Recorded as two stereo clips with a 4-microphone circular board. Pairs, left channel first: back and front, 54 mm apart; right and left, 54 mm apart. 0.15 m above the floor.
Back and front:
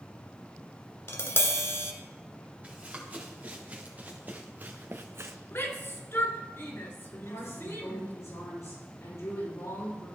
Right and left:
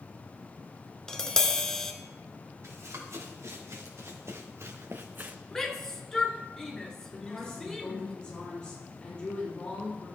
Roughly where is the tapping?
Behind.